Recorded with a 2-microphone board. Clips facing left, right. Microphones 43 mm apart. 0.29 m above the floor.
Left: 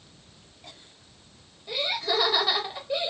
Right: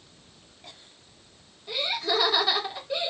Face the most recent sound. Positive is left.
turn(degrees=10)  # may be behind; listen again after turning